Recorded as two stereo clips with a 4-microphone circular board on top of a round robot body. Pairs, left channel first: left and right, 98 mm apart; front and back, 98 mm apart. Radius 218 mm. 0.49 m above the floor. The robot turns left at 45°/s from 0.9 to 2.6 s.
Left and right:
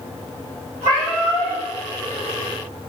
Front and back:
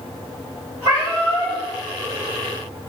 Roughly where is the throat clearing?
I don't hear throat clearing.